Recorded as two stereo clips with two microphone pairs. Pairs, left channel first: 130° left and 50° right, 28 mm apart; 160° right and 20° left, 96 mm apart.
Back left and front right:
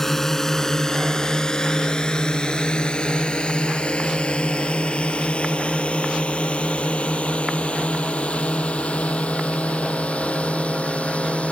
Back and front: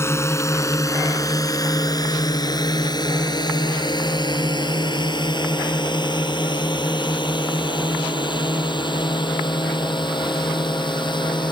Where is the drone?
165° right; by 11.5 s 165° left.